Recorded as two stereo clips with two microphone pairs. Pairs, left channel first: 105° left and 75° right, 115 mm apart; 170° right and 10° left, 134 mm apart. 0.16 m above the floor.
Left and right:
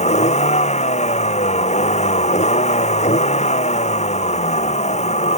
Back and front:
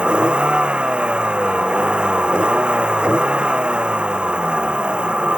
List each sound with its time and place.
0.0 s a vehicle: 95° left